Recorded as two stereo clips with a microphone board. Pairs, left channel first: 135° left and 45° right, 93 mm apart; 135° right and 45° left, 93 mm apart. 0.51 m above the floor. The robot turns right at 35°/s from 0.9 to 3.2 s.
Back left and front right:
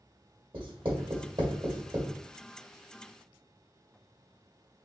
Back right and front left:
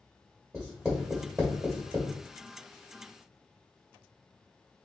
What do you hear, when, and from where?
0.5 s writing: 35° right, 1.6 m; by 2.1 s 10° left, 1.6 m